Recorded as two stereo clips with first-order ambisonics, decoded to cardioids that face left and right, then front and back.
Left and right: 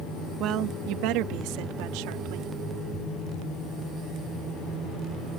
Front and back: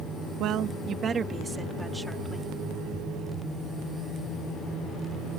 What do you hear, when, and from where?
0.4 s a woman speaking: 135° right; by 2.5 s 80° right